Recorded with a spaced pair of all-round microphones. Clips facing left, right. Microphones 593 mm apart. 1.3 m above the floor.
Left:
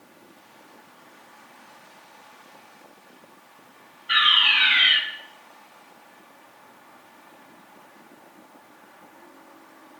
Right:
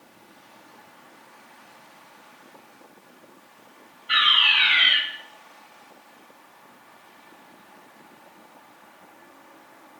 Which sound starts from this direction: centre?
A fire alarm, at 4.1 s.